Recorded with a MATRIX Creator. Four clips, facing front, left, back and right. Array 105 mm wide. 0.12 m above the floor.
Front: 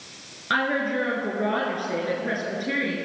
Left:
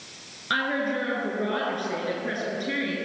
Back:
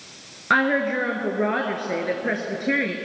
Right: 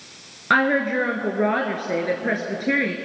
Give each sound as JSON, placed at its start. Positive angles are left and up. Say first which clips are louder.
{"t": 0.5, "sound": "a woman speaking", "louder": "right 7 dB, back 4 dB", "azimuth_deg": -120, "distance_m": 2.0}